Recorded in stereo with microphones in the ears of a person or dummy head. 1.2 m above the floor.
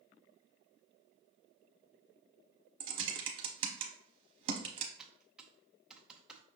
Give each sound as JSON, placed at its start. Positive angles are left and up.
{"t": 2.8, "sound": "typing on a keyboard", "side_deg": -30, "distance_m": 0.7}
{"t": 5.0, "sound": "typing on a keyboard", "side_deg": -5, "distance_m": 0.6}